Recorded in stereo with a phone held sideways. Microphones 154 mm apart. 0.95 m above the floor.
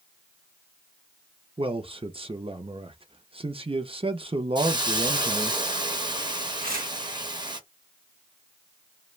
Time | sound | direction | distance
1.6 | a man speaking | 40° right (ahead or behind) | 0.6 m
4.5 | a hiss | 30° right (ahead or behind) | 0.6 m
6.6 | tearing paper | 85° right | 1.0 m